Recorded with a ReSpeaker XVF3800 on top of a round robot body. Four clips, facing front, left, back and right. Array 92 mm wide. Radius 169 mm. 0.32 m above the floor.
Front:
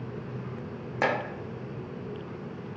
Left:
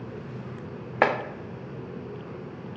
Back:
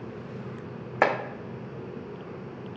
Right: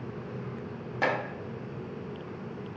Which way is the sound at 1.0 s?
125° left.